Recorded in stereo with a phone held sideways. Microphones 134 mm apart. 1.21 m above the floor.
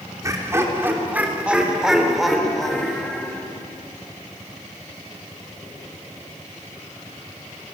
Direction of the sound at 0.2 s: 25° right (ahead or behind).